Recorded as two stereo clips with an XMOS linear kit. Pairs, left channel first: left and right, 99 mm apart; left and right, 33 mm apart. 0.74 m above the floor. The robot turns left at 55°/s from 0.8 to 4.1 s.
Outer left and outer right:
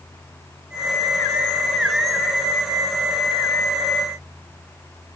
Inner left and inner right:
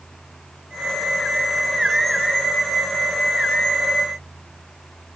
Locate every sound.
Only background noise.